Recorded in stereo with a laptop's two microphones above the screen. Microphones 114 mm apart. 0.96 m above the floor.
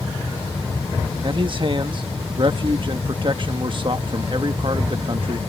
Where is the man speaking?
45° right (ahead or behind).